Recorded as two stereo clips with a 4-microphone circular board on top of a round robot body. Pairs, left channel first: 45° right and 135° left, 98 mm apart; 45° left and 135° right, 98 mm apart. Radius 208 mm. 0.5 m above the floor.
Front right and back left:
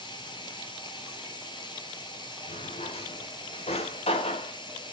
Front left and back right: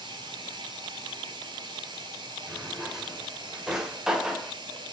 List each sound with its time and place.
0.0 s running water: 90° right, 1.5 m
2.5 s a drawer: 50° right, 1.6 m